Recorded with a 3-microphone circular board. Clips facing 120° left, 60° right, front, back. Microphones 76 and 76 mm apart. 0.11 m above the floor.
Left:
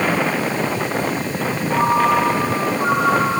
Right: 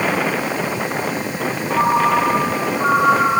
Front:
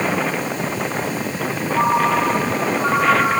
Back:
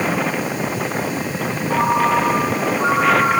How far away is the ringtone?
About 7.5 m.